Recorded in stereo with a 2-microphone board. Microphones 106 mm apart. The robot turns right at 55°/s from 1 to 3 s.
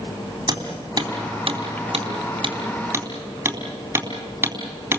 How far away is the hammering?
About 3.5 m.